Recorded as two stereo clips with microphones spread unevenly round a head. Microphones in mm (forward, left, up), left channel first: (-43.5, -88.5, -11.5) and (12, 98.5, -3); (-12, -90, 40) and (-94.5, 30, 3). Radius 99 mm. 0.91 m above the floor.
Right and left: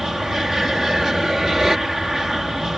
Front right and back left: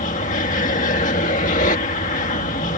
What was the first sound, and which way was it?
An aircraft, 15° right.